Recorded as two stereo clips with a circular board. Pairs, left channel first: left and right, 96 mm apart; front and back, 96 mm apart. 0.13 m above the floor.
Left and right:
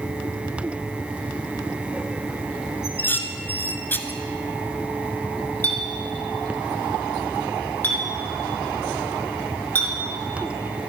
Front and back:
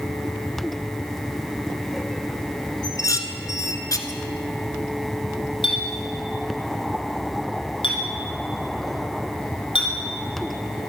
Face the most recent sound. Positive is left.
turn(degrees=20)